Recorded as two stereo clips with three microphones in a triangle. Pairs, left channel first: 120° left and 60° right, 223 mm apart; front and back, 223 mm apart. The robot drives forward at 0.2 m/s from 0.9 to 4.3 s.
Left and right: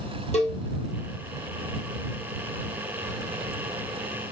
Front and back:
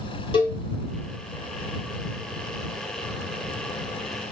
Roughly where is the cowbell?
Ahead left.